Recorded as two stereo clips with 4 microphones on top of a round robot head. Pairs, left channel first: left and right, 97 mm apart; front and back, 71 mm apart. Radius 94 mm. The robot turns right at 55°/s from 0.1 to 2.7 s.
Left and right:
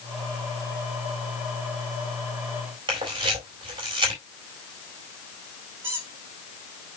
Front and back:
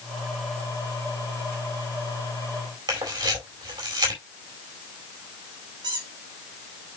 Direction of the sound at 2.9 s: 140° right.